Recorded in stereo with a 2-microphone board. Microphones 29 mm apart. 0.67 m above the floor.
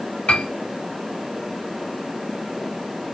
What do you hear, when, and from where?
0.3 s a piano: 50° left (ahead or behind), 1.4 m